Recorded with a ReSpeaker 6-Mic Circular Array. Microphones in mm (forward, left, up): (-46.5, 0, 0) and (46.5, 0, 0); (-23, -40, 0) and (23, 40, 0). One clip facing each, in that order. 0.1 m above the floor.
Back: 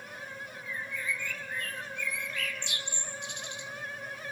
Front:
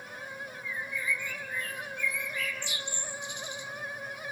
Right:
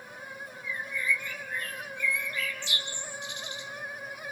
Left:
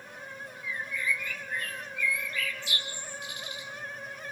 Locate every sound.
0.6 s a bird: 175° right, 2.5 m